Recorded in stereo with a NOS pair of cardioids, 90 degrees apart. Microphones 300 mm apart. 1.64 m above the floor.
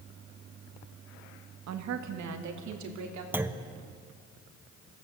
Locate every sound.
1.7 s a woman speaking: 65° right, 1.8 m; by 3.2 s 75° right, 3.5 m
3.3 s a clunk: 5° right, 1.1 m